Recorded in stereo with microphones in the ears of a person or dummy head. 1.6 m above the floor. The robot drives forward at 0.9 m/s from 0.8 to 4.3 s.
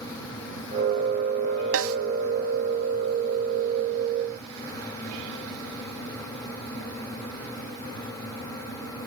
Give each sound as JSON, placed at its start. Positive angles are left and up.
{"t": 1.7, "sound": "a snare drum", "side_deg": -65, "distance_m": 1.2}